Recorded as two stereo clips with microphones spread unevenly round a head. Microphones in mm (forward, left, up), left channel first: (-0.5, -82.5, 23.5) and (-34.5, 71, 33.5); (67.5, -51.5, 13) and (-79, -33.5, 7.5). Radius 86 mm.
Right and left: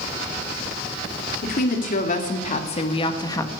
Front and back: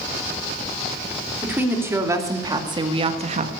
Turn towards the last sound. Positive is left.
turn(degrees=-150)